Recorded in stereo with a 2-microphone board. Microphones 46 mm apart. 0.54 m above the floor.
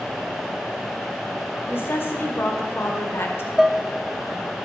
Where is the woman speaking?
55° left (ahead or behind), 1.9 m.